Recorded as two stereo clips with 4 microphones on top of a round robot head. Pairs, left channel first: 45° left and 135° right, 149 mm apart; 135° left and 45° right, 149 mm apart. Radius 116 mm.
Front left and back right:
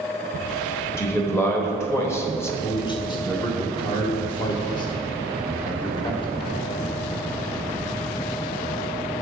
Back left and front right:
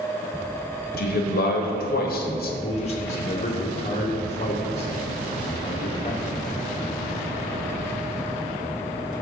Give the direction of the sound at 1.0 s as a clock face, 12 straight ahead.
8 o'clock.